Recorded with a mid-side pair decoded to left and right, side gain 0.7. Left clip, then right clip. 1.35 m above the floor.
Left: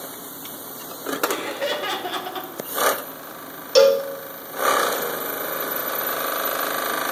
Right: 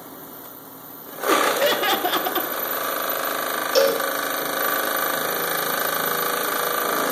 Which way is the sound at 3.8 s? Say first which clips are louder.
Left 5 dB; 15° left.